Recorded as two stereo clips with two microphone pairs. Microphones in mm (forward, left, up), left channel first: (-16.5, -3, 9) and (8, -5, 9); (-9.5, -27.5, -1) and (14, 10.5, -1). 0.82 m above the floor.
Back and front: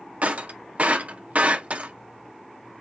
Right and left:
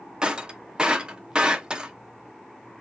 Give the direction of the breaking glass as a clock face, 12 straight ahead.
12 o'clock.